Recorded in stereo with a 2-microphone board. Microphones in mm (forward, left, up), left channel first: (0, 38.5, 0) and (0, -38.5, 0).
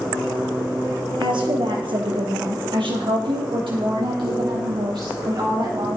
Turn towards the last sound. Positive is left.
turn(degrees=-65)  # may be behind; listen again after turning